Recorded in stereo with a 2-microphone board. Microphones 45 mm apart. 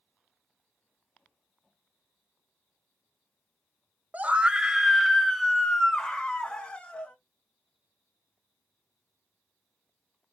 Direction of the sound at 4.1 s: 35° right (ahead or behind).